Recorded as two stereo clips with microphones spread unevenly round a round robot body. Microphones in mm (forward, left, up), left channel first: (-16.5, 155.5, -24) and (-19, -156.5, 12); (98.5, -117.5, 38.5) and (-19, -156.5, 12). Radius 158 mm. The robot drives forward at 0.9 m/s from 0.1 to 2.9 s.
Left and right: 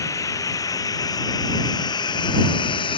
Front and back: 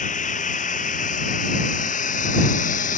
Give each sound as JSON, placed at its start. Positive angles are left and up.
{"t": 0.0, "sound": "running water", "azimuth_deg": 10}